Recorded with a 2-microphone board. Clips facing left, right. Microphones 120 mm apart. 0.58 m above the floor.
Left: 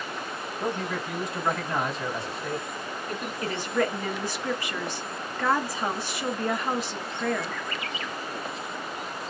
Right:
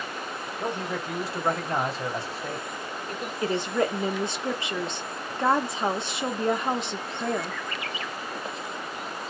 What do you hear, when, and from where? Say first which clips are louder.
0.6 s a man speaking: left 1 dB; 30° right (ahead or behind), 2 m
3.4 s a woman speaking: right 2 dB; 25° right (ahead or behind), 0.9 m